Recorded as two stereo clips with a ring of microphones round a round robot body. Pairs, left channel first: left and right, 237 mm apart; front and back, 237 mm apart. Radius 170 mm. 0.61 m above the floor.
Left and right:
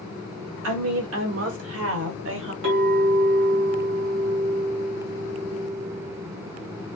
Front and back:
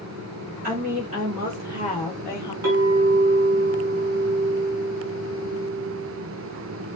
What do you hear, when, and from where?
0.6 s a woman speaking: 115° right, 2.5 m; by 2.5 s 70° right, 1.4 m
2.6 s a clink: 140° right, 2.5 m